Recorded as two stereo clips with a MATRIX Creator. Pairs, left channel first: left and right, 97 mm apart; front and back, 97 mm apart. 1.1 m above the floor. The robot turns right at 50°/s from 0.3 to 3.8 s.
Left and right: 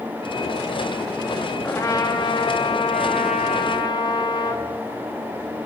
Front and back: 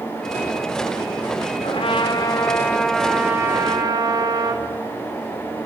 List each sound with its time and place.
1.6 s a trumpet: 20° left, 1.3 m; by 4.7 s 130° left, 1.3 m